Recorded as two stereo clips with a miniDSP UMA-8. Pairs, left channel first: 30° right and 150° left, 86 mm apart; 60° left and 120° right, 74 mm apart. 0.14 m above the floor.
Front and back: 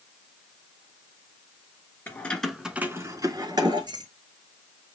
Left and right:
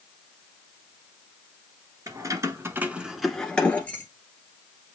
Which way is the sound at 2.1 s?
95° right.